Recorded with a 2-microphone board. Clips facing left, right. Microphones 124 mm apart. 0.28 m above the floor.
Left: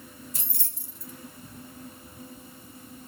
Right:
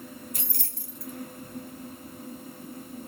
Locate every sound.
0.3 s keys jangling: 60° right (ahead or behind), 1.8 m